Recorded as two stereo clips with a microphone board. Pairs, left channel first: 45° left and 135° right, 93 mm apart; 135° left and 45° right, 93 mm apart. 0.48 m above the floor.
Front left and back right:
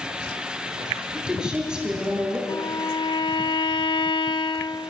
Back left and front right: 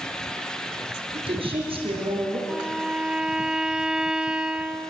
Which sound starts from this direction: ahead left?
A violin, at 2.5 s.